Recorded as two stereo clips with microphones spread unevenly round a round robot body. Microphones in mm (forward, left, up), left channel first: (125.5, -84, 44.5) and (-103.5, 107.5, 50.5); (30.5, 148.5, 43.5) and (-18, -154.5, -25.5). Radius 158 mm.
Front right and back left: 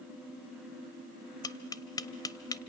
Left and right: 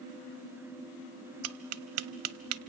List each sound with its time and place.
1.4 s tapping: 115° right, 0.7 m